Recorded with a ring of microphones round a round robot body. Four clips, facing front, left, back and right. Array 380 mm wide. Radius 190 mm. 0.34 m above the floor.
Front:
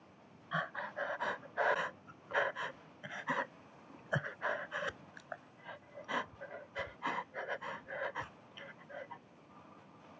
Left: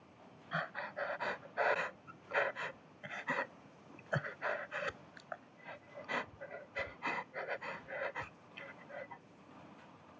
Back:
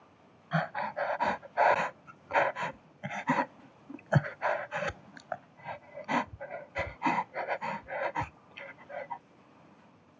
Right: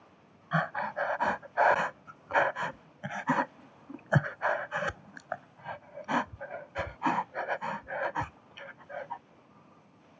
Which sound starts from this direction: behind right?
Breathing, at 0.5 s.